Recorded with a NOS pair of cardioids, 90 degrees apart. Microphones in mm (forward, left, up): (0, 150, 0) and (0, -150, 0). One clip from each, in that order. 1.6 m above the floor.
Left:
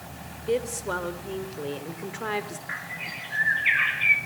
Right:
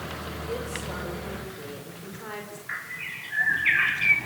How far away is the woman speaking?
About 6.5 m.